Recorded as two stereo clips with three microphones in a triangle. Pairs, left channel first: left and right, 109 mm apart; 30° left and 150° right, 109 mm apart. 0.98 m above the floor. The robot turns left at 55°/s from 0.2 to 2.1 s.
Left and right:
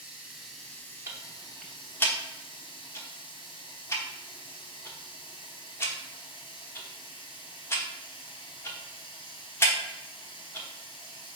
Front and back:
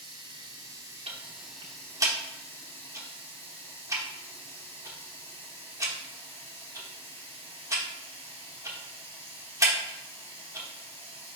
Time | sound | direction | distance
0.0 | running water | 170° right | 1.3 m
1.1 | ticking | 150° right | 0.8 m